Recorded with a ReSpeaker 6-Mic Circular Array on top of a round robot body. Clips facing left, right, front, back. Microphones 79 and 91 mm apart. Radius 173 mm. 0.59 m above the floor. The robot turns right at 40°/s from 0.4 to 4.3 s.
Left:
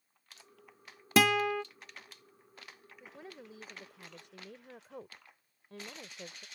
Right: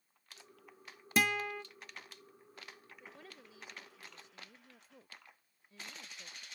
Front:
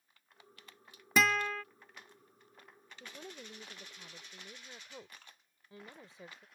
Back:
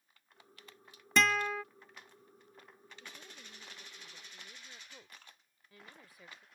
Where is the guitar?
85° left; by 1.6 s 105° left.